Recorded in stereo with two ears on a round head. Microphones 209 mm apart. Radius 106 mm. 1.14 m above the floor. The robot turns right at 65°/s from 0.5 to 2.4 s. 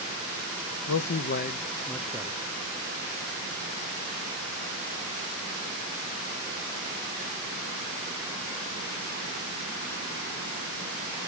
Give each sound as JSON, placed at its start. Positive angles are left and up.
{"t": 0.9, "sound": "a man speaking", "azimuth_deg": 105, "distance_m": 0.6}